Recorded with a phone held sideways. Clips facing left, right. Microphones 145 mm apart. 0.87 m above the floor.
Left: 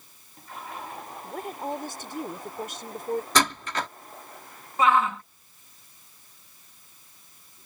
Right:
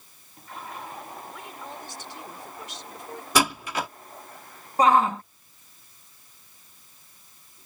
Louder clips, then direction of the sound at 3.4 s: Right 6 dB; 10° right (ahead or behind).